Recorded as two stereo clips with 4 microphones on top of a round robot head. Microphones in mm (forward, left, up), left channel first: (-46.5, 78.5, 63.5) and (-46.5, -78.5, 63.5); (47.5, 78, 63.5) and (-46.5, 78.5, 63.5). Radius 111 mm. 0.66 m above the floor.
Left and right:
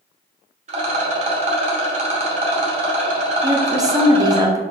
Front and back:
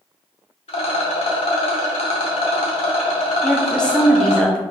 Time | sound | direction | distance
0.7 | a rattle | 35° right | 0.7 m
3.4 | a woman speaking | 65° right | 0.7 m